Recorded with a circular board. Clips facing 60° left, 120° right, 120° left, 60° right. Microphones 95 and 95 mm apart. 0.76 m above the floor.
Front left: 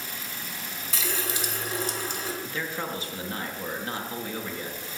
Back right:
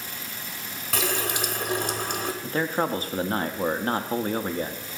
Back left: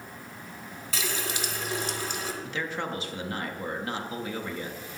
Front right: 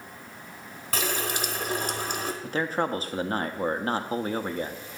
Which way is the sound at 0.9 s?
95° right.